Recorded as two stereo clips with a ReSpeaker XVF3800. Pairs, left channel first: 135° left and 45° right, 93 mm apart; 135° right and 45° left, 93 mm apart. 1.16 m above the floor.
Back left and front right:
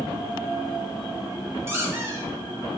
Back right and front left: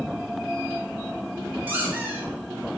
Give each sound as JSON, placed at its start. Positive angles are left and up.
{"t": 1.7, "sound": "a squeak", "azimuth_deg": -10, "distance_m": 0.6}